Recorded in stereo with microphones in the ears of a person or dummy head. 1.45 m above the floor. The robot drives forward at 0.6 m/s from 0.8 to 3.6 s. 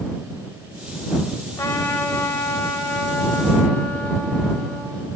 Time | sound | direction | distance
1.6 | a trumpet | 15° left (ahead or behind) | 5.5 m